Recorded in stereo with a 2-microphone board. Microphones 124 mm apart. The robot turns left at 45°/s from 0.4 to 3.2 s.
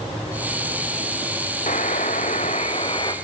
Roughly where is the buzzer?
Left.